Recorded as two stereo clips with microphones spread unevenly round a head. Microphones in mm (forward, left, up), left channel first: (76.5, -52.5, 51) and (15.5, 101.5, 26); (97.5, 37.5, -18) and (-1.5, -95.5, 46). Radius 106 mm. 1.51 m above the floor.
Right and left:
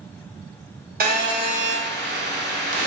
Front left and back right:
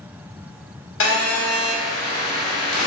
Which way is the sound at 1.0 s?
85° left.